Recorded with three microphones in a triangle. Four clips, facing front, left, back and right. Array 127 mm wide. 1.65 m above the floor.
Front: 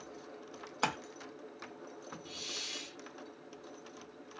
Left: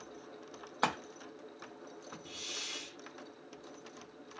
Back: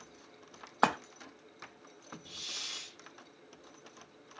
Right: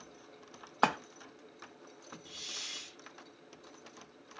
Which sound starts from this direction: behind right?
A splash, at 0.8 s.